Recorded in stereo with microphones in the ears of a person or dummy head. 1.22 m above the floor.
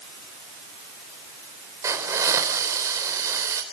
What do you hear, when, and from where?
1.8 s a hiss: 20° right (ahead or behind), 3.5 m